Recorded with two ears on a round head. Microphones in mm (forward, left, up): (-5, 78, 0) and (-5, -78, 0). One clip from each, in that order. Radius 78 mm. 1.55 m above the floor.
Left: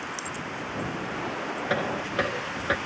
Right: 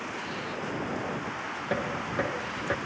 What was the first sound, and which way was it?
Knocking, 85° left.